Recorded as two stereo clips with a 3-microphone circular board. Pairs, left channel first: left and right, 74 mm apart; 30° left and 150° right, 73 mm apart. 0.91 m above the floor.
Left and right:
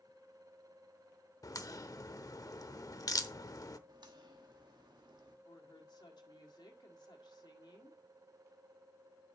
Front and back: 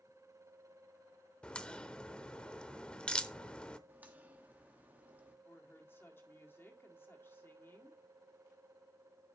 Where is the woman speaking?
85° left, 2.0 m.